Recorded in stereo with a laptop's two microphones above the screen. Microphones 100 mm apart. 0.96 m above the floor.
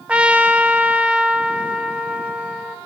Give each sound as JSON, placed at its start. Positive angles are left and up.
{"t": 0.1, "sound": "a trumpet", "side_deg": -10, "distance_m": 0.8}